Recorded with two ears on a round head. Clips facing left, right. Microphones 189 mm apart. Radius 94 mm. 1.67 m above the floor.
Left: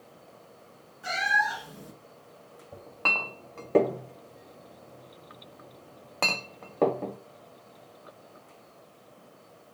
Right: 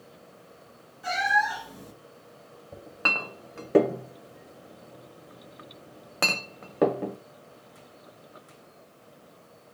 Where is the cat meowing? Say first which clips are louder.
Right 4 dB; centre (ahead or behind), 1.8 m.